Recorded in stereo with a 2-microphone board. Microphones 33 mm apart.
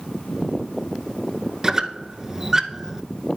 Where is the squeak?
15° right (ahead or behind), 0.8 m.